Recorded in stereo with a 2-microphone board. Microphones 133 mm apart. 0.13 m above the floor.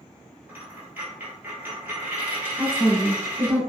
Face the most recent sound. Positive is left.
turn(degrees=-5)  # may be behind; listen again after turning